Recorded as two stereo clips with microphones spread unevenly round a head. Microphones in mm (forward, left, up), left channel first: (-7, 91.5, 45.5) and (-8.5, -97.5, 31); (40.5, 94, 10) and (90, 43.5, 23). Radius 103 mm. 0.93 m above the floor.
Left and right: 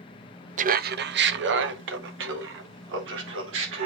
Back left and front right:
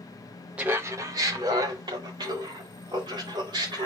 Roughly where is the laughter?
Behind right.